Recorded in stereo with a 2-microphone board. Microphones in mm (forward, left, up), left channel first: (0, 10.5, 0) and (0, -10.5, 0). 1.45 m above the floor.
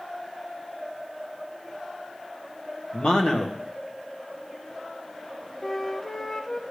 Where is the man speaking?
50° left (ahead or behind), 1.6 m.